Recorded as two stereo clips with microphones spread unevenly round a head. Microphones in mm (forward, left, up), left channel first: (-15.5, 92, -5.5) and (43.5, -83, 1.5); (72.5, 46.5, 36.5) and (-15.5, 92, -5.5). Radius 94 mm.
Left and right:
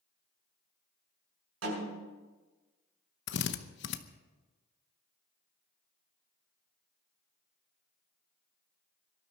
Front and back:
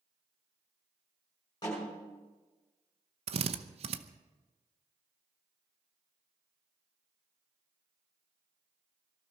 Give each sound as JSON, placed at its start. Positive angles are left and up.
{"t": 1.6, "sound": "a snare drum", "azimuth_deg": -95, "distance_m": 7.0}
{"t": 3.3, "sound": "a drill", "azimuth_deg": 145, "distance_m": 0.8}